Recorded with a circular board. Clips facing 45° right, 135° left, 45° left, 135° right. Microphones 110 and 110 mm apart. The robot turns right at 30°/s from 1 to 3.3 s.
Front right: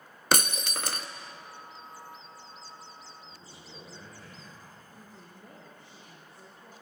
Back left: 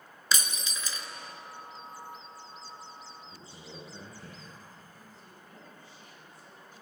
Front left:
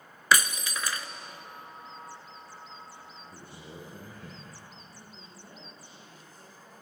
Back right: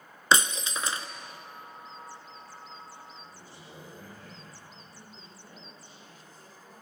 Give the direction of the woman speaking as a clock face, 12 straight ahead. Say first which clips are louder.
Front right 2 dB, even; 1 o'clock.